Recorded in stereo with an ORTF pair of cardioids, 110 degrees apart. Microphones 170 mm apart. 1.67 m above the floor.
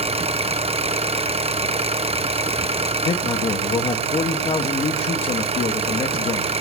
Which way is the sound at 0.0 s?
35° right.